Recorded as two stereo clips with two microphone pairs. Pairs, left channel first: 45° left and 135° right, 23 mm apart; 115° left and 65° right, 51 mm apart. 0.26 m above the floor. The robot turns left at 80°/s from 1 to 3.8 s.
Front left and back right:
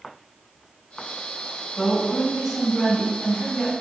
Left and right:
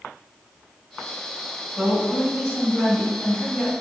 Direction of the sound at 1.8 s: 135° right.